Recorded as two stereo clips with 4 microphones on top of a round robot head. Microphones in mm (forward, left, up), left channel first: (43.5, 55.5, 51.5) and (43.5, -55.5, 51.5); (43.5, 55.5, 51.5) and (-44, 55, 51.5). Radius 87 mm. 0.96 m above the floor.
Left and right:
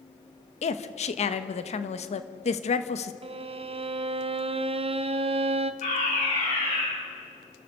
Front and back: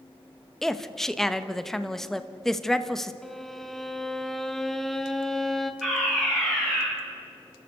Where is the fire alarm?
90° left, 9 m.